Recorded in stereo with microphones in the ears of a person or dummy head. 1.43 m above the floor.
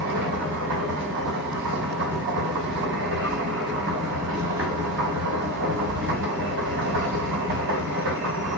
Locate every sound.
0.0 s a machine running: 75° right (ahead or behind), 3.5 m